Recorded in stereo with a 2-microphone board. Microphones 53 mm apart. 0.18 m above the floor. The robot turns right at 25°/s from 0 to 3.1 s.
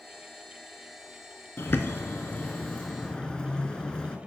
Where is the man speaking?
No man speaking in this recording.